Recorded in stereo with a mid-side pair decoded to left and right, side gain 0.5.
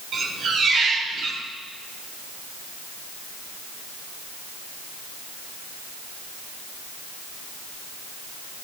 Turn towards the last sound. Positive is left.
turn(degrees=-60)